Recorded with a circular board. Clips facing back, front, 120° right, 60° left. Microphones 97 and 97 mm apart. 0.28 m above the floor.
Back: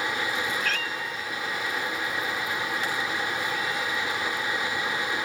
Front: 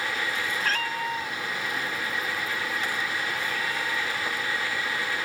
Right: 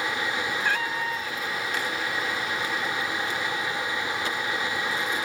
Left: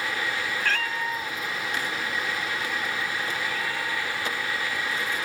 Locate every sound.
0.6 s a cat meowing: 50° right; by 5.2 s 45° left